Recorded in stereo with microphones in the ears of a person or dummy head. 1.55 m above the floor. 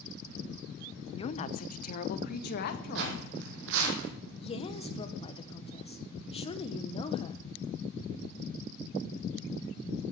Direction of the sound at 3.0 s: 60° right (ahead or behind).